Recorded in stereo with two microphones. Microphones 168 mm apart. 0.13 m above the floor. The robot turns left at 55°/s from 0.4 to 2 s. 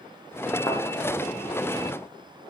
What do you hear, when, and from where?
0.7 s a thud: 25° left (ahead or behind), 2.5 m; by 0.8 s 30° left (ahead or behind), 2.5 m